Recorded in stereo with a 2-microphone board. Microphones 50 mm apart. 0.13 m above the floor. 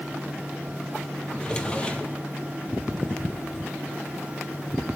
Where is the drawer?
20° left (ahead or behind), 1.7 m.